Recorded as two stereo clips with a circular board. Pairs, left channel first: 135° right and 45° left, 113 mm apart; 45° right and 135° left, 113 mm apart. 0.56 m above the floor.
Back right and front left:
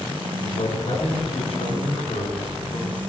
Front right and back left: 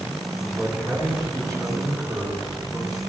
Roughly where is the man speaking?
Behind right.